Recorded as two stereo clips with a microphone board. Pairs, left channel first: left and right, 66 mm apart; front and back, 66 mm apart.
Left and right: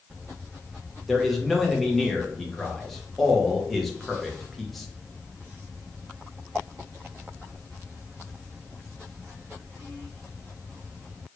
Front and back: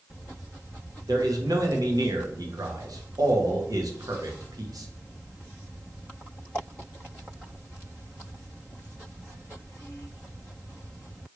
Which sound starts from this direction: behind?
A man speaking, at 1.1 s.